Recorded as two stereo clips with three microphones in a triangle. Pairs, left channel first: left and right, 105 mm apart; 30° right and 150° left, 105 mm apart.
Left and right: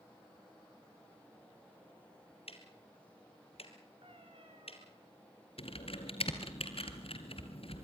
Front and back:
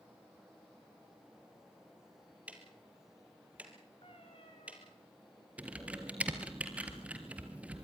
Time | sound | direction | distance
2.5 | ticking | 75° left | 2.5 m
4.0 | a cat meowing | 60° right | 5.5 m
5.6 | typing on a keyboard | 75° left | 2 m